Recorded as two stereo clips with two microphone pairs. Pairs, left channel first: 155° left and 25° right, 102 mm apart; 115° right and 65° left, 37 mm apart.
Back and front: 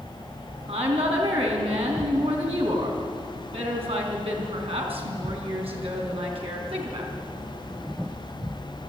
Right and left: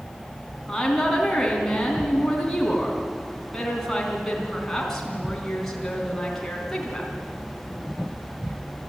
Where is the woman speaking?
35° right, 4 m.